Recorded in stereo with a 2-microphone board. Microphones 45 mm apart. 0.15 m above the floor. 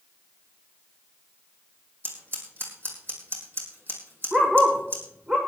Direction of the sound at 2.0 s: 55° right (ahead or behind).